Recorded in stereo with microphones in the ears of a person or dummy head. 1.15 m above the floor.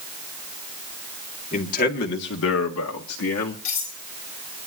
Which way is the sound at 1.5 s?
45° left (ahead or behind).